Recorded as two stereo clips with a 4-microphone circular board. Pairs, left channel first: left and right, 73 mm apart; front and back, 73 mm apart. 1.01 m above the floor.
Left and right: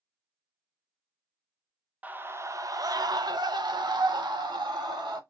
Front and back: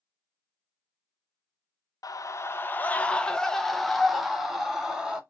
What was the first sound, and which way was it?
A scream, 25° right.